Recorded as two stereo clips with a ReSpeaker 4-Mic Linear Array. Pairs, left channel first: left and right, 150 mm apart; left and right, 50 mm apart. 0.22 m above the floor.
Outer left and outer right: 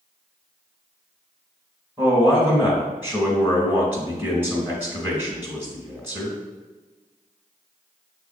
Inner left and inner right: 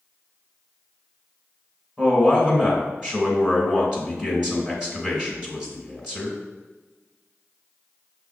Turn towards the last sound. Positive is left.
turn(degrees=-15)  # may be behind; listen again after turning